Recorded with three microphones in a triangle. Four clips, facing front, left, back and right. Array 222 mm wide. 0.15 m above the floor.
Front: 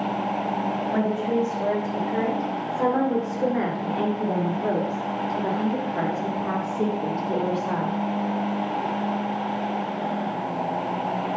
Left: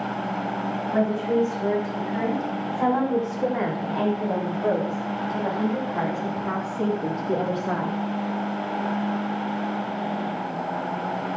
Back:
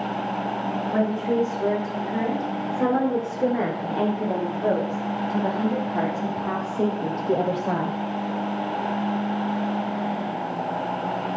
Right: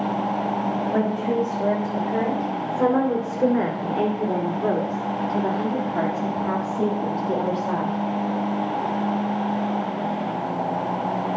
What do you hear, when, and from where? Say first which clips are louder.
0.9 s a woman speaking: left 3 dB, back 2 dB; 105° right, 9 m; by 8.0 s 155° right, 6 m